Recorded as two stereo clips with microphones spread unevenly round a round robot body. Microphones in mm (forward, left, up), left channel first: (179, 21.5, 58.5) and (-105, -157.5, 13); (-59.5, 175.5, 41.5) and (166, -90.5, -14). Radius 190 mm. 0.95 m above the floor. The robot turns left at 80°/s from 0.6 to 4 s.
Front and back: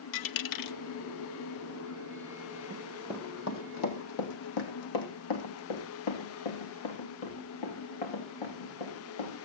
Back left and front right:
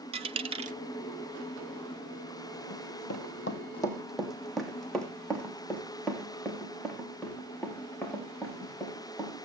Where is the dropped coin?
30° left, 0.8 m; by 0.8 s 15° left, 0.8 m.